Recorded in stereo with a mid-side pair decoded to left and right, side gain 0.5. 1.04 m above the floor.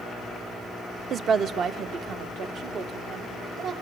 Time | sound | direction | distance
1.1 | a woman speaking | 45° right | 0.6 m